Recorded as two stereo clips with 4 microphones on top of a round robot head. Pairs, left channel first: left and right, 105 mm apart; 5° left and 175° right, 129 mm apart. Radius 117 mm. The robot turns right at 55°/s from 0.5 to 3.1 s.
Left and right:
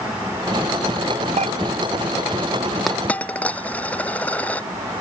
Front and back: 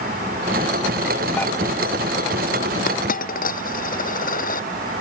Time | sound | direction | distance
1.4 | dishes clattering | 80° right | ?
2.9 | a dropped coin | straight ahead | ?